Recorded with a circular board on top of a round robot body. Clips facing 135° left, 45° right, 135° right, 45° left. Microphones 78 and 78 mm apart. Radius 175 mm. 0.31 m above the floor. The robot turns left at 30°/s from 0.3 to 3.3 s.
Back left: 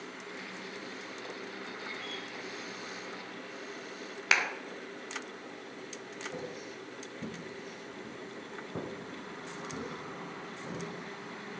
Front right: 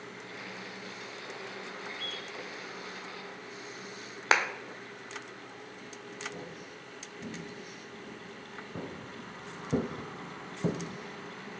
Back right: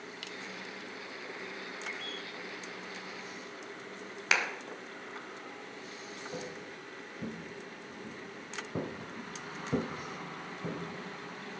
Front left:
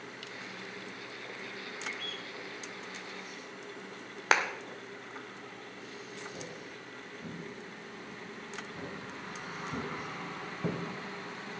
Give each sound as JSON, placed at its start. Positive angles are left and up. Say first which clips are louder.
{"t": 1.9, "sound": "a bird", "louder": "even, even", "azimuth_deg": -45, "distance_m": 6.0}
{"t": 4.3, "sound": "a clap", "louder": "front right 3 dB, front left 4 dB", "azimuth_deg": 5, "distance_m": 1.6}
{"t": 6.3, "sound": "footsteps", "louder": "back left 3 dB, back right 2 dB", "azimuth_deg": -165, "distance_m": 4.0}